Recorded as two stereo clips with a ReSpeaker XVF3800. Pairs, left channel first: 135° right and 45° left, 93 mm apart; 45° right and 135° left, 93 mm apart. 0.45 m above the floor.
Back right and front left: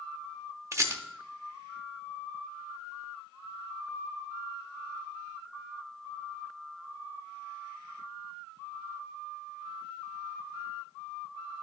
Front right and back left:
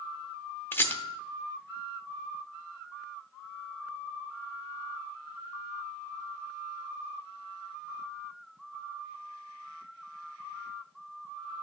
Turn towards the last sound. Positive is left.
turn(degrees=10)